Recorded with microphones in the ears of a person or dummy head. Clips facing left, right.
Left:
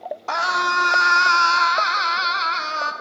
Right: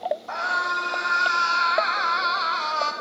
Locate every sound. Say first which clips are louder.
0.3 s a scream: left 5 dB; 65° left (ahead or behind), 3 m; by 2.9 s 30° left (ahead or behind), 2.5 m